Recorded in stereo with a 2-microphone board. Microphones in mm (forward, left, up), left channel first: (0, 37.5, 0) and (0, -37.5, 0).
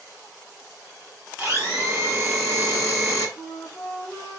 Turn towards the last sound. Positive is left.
turn(degrees=15)  # may be behind; listen again after turning